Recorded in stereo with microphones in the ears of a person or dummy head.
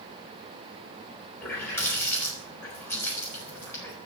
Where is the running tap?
10° left (ahead or behind), 4.5 m.